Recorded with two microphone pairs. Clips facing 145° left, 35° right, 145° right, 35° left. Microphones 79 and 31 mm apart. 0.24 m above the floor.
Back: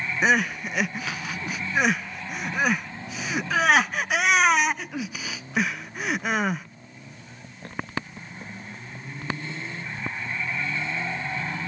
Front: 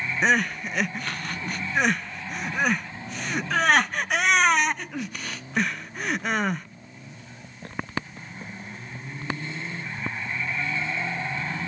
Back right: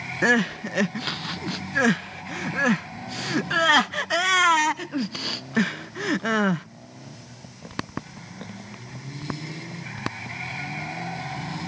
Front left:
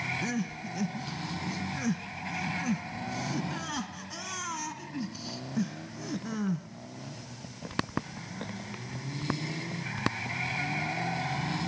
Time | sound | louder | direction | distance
0.2 | crying | back 1 dB, back right 13 dB | 125° right | 0.5 m